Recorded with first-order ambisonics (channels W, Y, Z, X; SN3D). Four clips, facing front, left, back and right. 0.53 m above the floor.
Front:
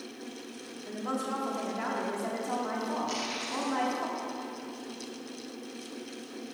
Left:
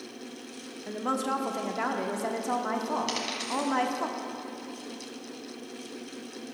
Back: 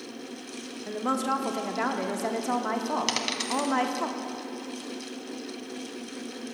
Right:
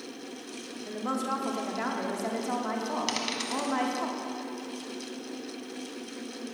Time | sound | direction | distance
0.9 | a woman speaking | 160° left | 0.7 m
3.1 | a dropped coin | 165° right | 1.0 m